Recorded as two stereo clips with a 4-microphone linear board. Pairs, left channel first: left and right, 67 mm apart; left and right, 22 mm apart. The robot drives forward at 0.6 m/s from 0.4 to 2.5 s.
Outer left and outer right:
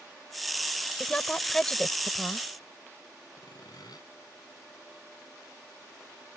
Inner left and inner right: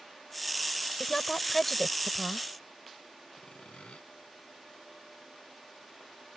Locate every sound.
1.0 s a woman speaking: 15° left (ahead or behind)
3.4 s sawing: 75° left (ahead or behind)